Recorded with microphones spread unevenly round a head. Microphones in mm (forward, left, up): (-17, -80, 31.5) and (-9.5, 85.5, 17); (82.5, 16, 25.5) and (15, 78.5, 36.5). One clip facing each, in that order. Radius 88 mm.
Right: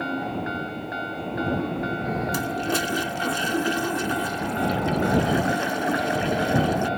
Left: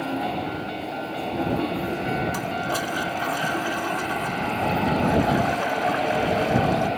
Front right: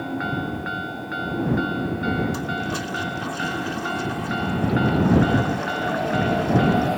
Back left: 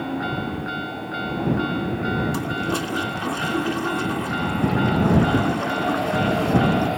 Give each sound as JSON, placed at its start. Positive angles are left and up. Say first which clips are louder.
{"t": 2.3, "sound": "a toilet flushing", "louder": "right 1 dB, back left 2 dB", "azimuth_deg": -155}